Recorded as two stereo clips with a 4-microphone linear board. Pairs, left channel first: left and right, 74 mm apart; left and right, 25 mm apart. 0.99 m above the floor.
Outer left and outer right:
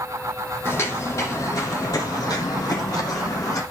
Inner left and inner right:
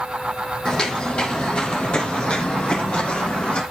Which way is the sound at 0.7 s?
35° left (ahead or behind).